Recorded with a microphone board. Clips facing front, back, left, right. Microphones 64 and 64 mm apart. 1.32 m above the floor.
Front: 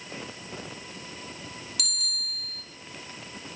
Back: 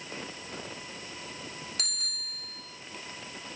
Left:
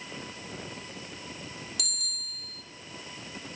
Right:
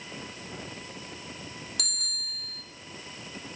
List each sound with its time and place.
1.8 s a bicycle bell: 125° right, 2 m